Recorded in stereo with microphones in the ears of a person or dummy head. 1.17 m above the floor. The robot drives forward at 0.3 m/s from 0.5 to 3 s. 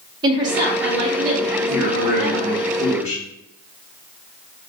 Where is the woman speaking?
25° right (ahead or behind), 0.8 m; by 2.7 s 30° right (ahead or behind), 0.6 m.